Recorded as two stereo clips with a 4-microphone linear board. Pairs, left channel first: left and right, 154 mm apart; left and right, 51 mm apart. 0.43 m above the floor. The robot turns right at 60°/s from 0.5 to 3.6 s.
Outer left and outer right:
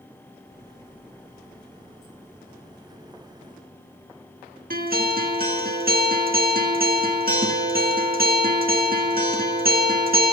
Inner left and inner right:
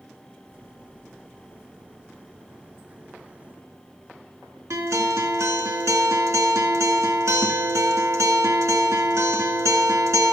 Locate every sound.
4.7 s a guitar: 65° right (ahead or behind), 2 m